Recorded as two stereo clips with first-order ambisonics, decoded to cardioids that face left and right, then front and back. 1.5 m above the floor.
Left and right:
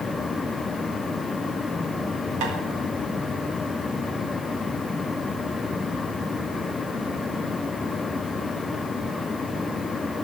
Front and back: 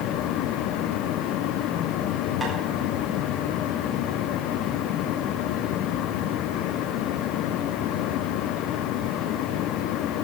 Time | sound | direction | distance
2.4 | tapping | 95° right | 5 m